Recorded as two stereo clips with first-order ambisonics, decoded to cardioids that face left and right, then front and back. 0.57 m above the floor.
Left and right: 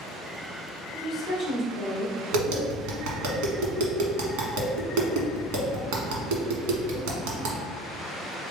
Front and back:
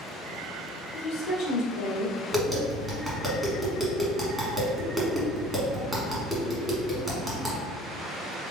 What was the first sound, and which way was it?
A woman speaking, straight ahead.